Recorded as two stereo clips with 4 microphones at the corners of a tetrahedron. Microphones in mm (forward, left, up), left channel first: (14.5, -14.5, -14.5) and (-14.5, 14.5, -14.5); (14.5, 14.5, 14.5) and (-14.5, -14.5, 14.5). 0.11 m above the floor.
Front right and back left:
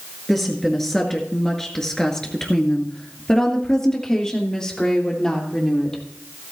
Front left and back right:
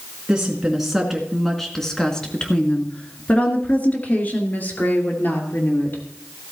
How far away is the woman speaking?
About 1.7 m.